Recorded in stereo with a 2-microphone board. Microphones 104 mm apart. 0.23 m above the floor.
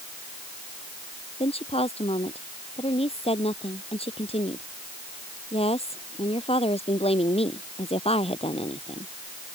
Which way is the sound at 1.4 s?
70° left (ahead or behind).